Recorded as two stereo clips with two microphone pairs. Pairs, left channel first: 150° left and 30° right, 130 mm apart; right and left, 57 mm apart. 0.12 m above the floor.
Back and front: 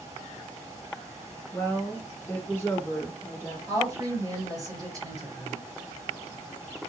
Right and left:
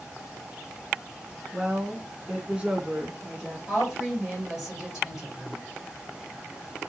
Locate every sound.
1.5 s a woman speaking: 120° left, 1.2 m
3.7 s a woman speaking: 15° left, 2.0 m